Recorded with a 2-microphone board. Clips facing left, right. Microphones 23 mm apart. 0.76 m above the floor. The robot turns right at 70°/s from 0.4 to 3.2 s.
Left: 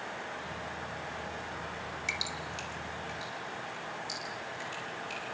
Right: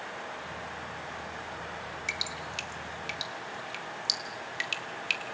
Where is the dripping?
5° right (ahead or behind), 1.7 m; by 5.3 s 60° right (ahead or behind), 1.7 m.